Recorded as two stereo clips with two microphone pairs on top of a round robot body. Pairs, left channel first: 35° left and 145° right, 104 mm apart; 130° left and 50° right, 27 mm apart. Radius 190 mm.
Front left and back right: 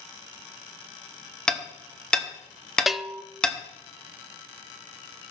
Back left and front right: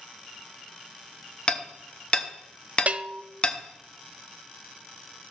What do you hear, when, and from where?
1.5 s hammering: 115° left, 1.3 m
2.9 s a bell: 55° right, 0.6 m